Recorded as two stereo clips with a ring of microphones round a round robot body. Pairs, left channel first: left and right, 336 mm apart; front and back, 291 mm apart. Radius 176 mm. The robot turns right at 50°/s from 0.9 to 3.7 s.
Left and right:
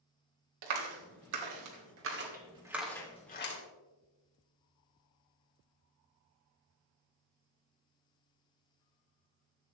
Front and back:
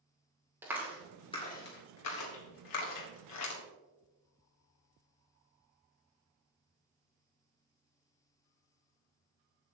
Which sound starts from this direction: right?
A clap, at 0.6 s.